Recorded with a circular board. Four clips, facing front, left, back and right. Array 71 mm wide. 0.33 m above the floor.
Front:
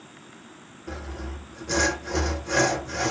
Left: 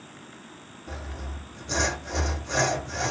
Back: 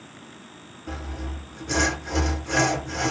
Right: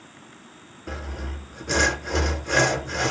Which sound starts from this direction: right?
Sawing, at 0.9 s.